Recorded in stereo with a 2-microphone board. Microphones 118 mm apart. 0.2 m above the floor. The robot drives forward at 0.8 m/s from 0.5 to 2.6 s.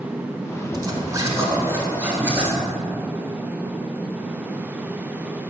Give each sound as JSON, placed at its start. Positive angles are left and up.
{"t": 0.7, "sound": "a zipper", "side_deg": -35, "distance_m": 0.9}